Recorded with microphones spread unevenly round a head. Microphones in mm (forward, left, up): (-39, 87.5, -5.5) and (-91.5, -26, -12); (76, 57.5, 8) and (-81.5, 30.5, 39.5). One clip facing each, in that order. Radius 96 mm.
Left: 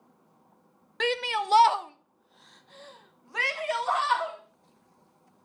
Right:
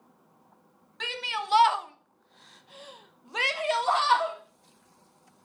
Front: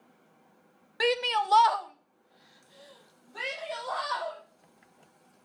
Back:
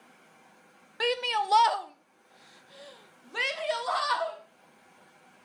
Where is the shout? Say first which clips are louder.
Left 7 dB, front 2 dB; 90° left, 1.0 m; by 4.4 s 170° right, 2.5 m.